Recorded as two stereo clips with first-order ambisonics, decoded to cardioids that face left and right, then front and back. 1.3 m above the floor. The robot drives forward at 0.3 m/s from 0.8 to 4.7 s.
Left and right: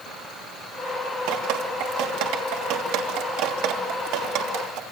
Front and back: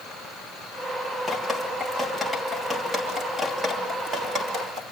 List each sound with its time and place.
1.3 s dripping: 90° right, 2.5 m; by 4.8 s 110° right, 3 m